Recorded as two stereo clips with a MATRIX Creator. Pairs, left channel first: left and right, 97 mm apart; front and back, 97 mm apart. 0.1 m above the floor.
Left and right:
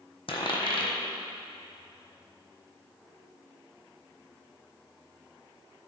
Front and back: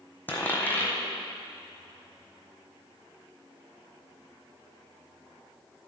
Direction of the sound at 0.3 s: 70° left.